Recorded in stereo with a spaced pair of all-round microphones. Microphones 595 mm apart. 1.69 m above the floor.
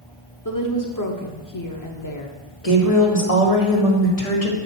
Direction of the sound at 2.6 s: 70° left (ahead or behind).